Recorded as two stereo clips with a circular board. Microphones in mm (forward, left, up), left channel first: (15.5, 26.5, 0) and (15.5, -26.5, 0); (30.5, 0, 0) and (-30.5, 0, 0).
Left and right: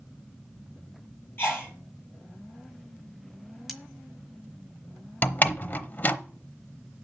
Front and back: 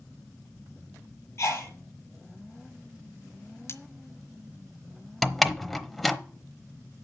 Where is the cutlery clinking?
Straight ahead, 1.1 m.